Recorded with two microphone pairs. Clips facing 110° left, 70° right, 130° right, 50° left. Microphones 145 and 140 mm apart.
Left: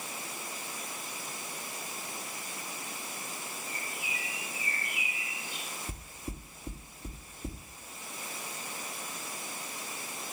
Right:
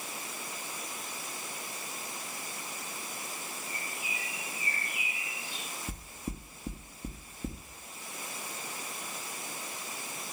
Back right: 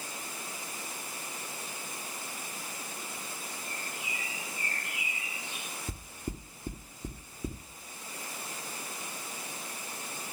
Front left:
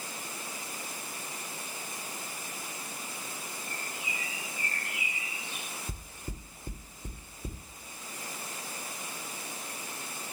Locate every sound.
3.6 s a bird: 120° right, 6 m
5.9 s knocking: 115° right, 3.5 m